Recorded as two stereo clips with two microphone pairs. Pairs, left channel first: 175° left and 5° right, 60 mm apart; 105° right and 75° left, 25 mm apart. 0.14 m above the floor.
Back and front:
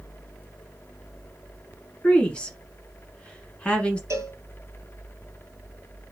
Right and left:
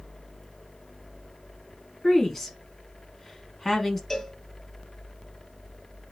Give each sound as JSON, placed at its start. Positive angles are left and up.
{"t": 2.0, "sound": "a woman speaking", "azimuth_deg": -160, "distance_m": 1.1}
{"t": 4.1, "sound": "a cowbell", "azimuth_deg": -35, "distance_m": 0.8}